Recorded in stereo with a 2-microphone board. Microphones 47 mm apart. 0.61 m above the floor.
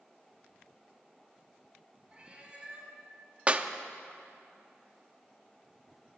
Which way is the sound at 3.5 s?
30° right (ahead or behind).